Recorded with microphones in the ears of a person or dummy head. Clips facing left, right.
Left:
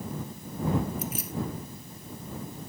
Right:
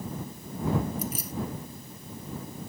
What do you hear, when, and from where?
1.0 s keys jangling: 40° right (ahead or behind)